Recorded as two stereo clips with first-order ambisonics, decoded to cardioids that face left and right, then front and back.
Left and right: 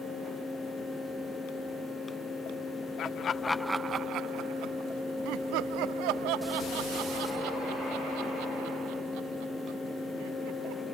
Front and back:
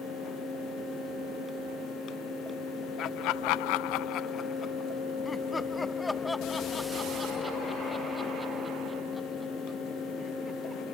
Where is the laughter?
45° left; by 10.8 s 90° right.